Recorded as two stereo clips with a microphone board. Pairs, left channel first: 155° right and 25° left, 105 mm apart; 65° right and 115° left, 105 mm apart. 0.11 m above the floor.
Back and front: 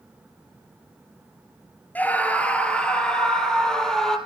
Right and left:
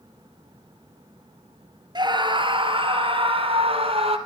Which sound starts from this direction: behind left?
A scream, at 1.9 s.